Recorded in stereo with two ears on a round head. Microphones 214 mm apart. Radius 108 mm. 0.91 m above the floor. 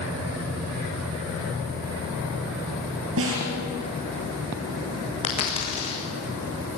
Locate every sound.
3.2 s a snare drum: 55° right (ahead or behind), 6.5 m
5.2 s a dropped coin: 25° left (ahead or behind), 6.5 m